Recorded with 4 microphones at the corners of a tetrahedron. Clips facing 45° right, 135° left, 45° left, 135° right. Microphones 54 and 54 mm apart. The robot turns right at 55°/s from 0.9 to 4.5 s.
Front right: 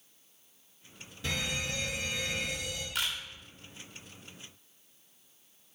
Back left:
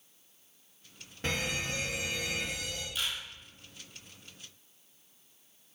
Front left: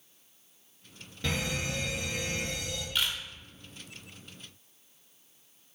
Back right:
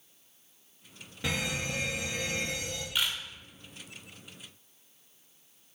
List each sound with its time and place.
1.2 s a fire alarm: 155° left, 2.5 m; by 2.9 s 115° right, 2.5 m
3.0 s a camera shutter: 55° right, 1.0 m; by 3.2 s 45° right, 1.0 m